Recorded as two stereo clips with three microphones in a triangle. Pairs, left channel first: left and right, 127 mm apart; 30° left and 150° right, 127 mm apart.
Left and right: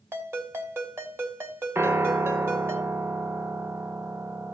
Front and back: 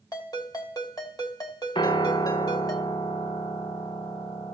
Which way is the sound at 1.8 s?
20° right.